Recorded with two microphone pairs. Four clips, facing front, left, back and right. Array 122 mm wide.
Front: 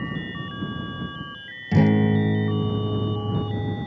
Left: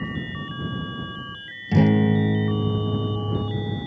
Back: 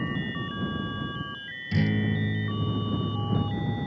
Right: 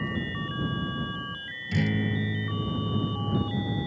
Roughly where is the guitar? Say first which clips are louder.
Left 10 dB, front 8 dB; ahead left.